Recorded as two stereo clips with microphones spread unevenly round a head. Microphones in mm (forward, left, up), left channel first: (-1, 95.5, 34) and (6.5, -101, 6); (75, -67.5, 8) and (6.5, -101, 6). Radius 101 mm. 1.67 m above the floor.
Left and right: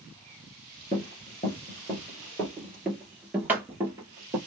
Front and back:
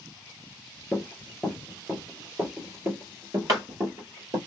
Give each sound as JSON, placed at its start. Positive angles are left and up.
{"t": 0.9, "sound": "running footsteps", "azimuth_deg": 105, "distance_m": 1.9}